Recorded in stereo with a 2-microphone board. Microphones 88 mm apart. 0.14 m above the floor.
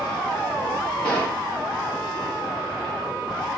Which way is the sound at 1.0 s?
15° left (ahead or behind).